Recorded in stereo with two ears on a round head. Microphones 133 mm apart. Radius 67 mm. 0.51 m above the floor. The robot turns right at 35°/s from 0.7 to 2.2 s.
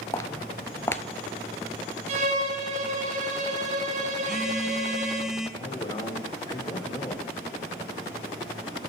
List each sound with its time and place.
0.1 s footsteps: 20° left (ahead or behind), 0.5 m; by 1.0 s 15° left (ahead or behind), 0.5 m
2.1 s a violin: 50° right (ahead or behind), 1.6 m
4.2 s a phone buzzing: 5° right (ahead or behind), 1.4 m
5.6 s a man speaking: 30° left (ahead or behind), 1.8 m